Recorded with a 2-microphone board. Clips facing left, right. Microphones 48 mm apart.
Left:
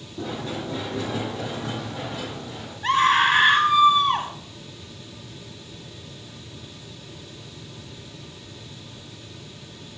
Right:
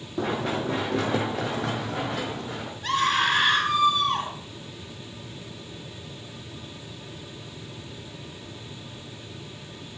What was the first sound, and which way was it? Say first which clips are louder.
Running footsteps: right 4 dB; 60° right (ahead or behind).